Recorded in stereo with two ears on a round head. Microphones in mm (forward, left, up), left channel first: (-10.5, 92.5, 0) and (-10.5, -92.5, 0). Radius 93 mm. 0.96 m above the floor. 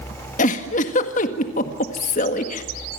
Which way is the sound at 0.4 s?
40° left (ahead or behind).